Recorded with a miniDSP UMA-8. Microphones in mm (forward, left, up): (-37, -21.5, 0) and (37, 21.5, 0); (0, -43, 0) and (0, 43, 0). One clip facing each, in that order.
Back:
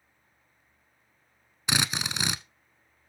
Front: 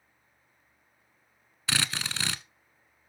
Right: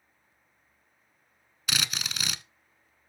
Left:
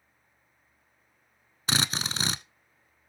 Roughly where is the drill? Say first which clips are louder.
Back 2 dB, left 4 dB; behind left.